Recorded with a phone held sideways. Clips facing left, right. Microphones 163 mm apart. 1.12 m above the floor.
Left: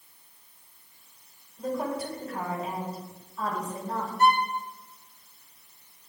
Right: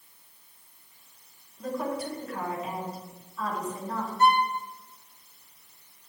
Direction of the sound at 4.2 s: 25° right (ahead or behind).